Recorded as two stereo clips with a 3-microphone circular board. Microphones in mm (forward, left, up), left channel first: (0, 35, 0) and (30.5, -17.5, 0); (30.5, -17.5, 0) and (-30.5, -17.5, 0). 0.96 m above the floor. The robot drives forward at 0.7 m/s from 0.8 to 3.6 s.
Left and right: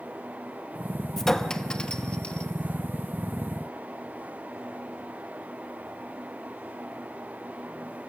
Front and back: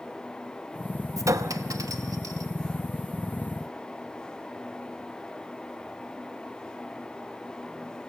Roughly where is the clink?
Behind right.